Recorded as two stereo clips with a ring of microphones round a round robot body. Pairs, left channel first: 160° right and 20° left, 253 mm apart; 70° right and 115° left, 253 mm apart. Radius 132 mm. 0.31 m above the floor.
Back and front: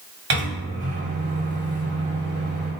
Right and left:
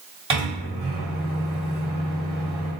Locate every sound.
0.3 s a microwave: 55° left, 1.2 m